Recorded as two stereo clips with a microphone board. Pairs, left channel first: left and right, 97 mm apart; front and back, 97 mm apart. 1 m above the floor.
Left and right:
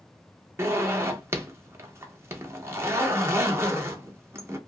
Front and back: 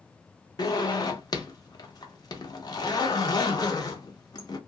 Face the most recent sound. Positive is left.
turn(degrees=-35)